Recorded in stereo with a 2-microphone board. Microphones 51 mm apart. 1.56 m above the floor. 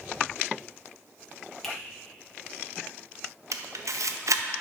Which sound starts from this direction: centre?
A finger snap, at 1.6 s.